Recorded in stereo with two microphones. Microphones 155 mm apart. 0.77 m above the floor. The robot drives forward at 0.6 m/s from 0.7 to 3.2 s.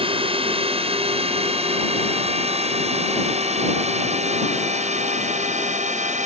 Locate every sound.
0.0 s a drone: 35° right (ahead or behind); by 6.3 s 50° right (ahead or behind)